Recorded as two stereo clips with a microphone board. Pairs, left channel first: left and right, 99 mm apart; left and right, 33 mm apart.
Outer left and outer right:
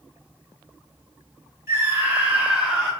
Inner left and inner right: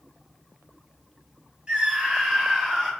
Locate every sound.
1.7 s a scream: 25° right (ahead or behind), 3 m; by 2.9 s 10° right (ahead or behind), 4 m